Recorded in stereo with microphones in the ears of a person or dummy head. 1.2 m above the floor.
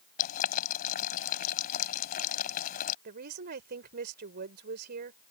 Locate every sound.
0.2 s boiling: 50° left (ahead or behind)
3.0 s a woman speaking: 55° right (ahead or behind)